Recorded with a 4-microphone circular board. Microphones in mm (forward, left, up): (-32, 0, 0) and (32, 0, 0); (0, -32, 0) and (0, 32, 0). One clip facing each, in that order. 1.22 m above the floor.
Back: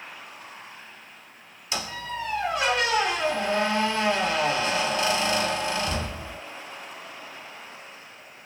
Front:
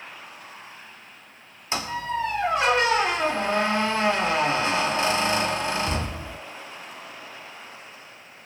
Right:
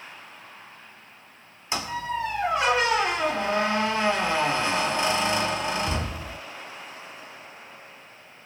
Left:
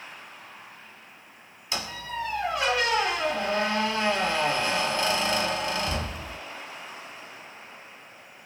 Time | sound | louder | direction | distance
1.7 | a squeak | front 5 dB, right 5 dB | 35° right | 1.3 m